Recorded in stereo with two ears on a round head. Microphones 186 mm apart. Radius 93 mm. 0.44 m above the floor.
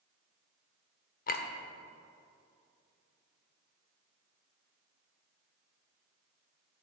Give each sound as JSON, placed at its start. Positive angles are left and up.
{"t": 1.3, "sound": "a clink", "side_deg": 45, "distance_m": 0.6}